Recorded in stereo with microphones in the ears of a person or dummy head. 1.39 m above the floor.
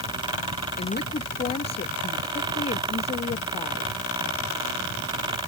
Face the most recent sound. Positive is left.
turn(degrees=35)  # may be behind; listen again after turning